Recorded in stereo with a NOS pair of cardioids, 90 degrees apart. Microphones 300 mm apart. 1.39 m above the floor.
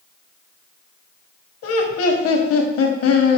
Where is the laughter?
50° left, 0.9 m.